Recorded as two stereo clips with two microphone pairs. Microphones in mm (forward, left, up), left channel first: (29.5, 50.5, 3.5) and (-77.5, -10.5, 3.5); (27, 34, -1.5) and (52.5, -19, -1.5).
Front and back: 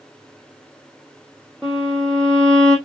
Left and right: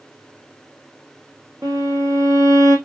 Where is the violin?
50° right, 3 m.